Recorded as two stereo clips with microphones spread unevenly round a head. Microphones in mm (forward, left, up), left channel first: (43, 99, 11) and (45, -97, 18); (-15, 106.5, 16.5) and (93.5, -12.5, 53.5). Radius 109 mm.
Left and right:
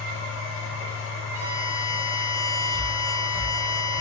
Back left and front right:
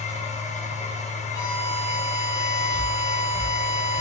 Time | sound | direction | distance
0.0 | a machine running | 100° left | 0.8 m
1.3 | a violin | 170° right | 0.6 m